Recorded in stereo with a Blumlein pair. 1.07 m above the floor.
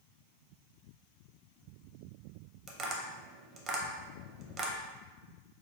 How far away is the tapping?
About 0.6 m.